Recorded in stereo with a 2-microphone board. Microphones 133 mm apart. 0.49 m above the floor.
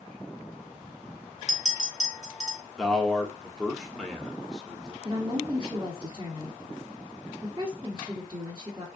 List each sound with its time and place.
1.5 s a clink: 55° left (ahead or behind), 1.2 m
2.8 s a man speaking: 5° left (ahead or behind), 0.7 m
5.0 s a woman speaking: 20° right (ahead or behind), 1.1 m